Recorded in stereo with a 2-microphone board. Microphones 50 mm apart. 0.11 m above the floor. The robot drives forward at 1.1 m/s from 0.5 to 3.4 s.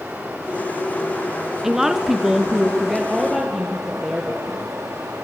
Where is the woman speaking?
10° right (ahead or behind), 1.1 m; by 4.6 s 5° right (ahead or behind), 1.9 m.